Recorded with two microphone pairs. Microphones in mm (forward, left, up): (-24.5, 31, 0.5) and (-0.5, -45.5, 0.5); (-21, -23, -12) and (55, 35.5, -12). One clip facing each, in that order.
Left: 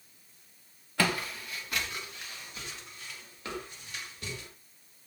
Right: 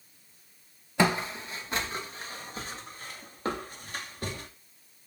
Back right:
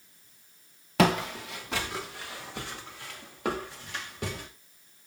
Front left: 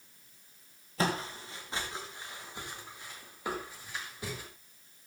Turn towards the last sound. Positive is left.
turn(degrees=-120)